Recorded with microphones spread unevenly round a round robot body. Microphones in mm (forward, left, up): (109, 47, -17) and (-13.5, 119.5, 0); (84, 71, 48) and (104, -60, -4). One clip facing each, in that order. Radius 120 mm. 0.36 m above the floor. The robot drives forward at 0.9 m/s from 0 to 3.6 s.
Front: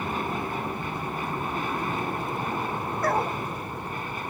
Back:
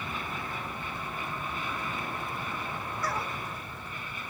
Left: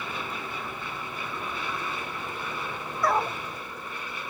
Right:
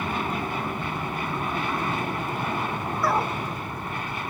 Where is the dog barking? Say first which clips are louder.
Front 9 dB, even; 5° left; by 3.4 s 10° left.